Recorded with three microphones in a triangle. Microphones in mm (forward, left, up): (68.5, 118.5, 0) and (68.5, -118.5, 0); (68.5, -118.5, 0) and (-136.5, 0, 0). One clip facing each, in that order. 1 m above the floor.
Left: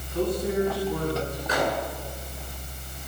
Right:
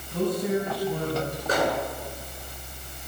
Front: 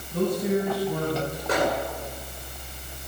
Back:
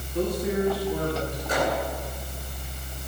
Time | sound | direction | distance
0.1 | a man speaking | 60° right | 8 m
1.5 | a microwave | 50° right | 10 m